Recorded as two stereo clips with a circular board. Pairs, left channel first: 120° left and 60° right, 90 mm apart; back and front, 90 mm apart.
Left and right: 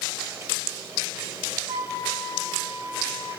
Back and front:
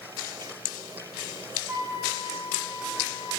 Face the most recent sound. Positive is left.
turn(degrees=-65)